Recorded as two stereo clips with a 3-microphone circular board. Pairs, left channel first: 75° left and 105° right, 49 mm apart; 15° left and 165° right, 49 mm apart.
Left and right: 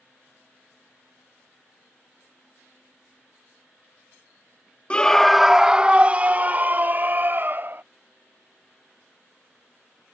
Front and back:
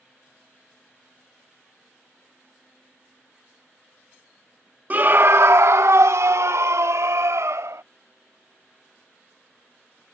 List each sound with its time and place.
4.9 s a scream: 140° left; by 7.8 s 150° right